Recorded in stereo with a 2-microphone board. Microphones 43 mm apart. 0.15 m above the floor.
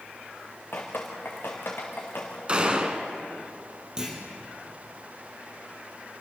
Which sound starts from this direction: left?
Dripping, at 0.7 s.